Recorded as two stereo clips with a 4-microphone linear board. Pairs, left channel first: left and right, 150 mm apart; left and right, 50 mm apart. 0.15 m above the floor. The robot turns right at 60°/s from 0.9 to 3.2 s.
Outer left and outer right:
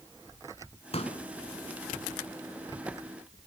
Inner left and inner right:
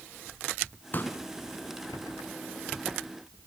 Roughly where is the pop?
Left.